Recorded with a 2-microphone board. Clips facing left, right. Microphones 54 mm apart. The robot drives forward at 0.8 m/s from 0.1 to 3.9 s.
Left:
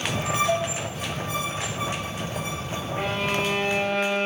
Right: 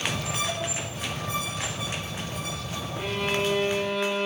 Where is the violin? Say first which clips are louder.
Left 1 dB; 65° left (ahead or behind), 6 m; by 4.3 s 60° left (ahead or behind), 6 m.